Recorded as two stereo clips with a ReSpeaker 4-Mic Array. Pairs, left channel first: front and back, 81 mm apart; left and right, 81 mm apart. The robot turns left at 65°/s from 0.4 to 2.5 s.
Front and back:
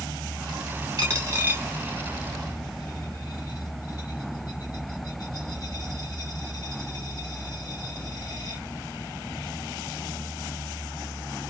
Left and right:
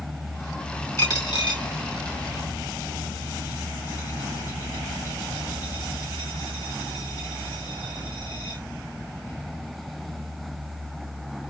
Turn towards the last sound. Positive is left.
turn(degrees=45)